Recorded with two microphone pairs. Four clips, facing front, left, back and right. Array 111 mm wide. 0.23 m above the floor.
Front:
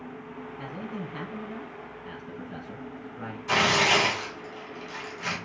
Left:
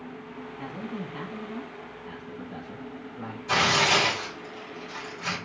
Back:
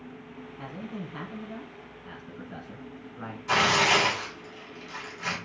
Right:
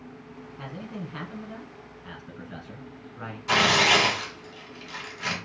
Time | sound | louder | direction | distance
0.6 | a man speaking | left 1 dB, front 1 dB | 115° right | 1.8 m
3.5 | tearing paper | right 2 dB, even | 85° right | 1.9 m